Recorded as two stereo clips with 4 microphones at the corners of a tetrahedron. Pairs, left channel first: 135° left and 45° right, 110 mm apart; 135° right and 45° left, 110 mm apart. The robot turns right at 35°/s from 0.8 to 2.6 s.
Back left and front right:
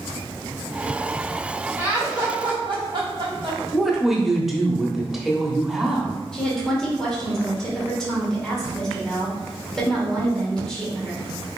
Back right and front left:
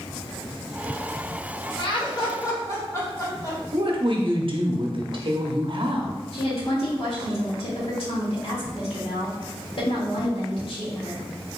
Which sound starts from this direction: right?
Laughter, at 1.8 s.